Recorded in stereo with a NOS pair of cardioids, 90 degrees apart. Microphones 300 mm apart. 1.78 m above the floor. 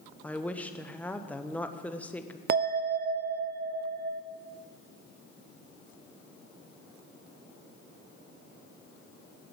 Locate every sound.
0.2 s a woman speaking: 5° left, 1.0 m
2.5 s a bell: 35° right, 0.7 m